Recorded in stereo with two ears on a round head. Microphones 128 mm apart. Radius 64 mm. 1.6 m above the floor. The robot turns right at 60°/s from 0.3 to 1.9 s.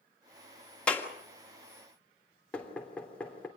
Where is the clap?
5° left (ahead or behind), 1.8 m; by 1.1 s 20° left (ahead or behind), 1.8 m.